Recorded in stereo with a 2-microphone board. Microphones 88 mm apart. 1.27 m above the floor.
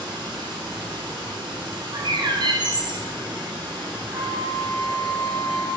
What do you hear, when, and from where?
0.0 s running water: 85° right, 1.2 m
1.9 s a bird: 60° right (ahead or behind), 0.5 m
4.1 s a flute: 65° right (ahead or behind), 1.4 m